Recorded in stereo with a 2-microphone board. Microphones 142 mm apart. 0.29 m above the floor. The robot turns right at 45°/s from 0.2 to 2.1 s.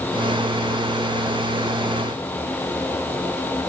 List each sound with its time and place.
Only background noise.